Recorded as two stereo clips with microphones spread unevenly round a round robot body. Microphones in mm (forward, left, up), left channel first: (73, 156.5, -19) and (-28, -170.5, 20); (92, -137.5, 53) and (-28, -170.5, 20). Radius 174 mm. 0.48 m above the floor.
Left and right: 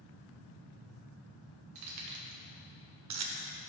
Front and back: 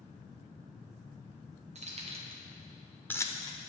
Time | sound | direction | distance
1.8 | keys jangling | 160° right | 1.5 m